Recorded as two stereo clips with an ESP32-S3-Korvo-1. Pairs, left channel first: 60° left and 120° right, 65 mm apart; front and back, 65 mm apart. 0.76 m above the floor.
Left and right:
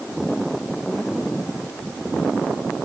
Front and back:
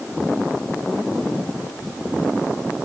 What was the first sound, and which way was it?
Only background noise.